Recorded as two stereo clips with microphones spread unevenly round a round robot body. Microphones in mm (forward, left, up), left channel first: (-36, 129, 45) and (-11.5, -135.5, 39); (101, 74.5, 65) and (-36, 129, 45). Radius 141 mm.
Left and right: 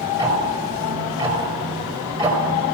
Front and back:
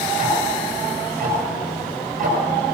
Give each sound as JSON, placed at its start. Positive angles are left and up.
{"t": 0.2, "sound": "ticking", "azimuth_deg": -155, "distance_m": 5.5}